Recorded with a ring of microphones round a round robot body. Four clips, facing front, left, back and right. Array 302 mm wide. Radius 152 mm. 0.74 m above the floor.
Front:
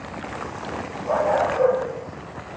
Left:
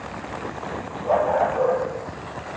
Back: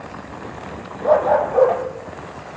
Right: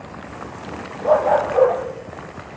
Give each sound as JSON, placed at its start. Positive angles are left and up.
{"t": 1.0, "sound": "a dog barking", "azimuth_deg": -145, "distance_m": 6.5}